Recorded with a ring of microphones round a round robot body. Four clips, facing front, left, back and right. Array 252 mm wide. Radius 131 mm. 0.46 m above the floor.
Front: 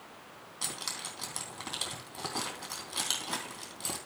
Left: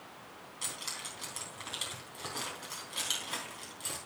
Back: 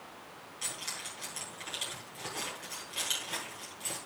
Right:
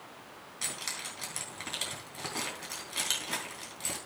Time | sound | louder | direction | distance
0.6 | keys jangling | right 3 dB, front 3 dB | 25° right | 3.5 m